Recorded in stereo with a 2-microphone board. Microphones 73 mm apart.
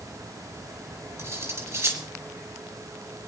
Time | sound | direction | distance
1.2 | cutlery clinking | 45° right (ahead or behind) | 4 m